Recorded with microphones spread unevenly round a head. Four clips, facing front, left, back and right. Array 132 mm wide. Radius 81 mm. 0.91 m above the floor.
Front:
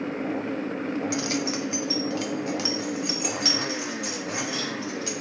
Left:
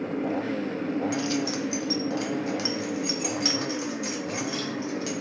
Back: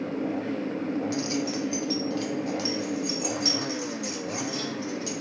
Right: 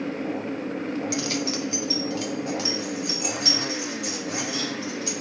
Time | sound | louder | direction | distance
1.1 | keys jangling | even, front 1 dB | 5° right | 0.6 m